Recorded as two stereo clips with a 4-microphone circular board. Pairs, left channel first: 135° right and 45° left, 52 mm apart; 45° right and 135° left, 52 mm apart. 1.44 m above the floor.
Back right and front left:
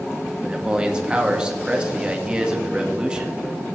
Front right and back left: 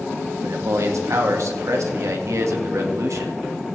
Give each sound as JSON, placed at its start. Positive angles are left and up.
{"t": 0.4, "sound": "a man speaking", "azimuth_deg": 115, "distance_m": 1.8}